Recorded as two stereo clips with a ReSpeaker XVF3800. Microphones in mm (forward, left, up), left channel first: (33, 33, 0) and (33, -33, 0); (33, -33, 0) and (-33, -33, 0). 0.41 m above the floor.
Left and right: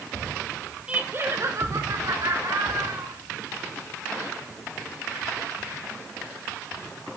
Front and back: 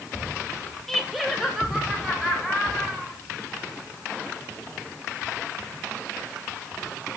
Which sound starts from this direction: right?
Laughter, at 0.9 s.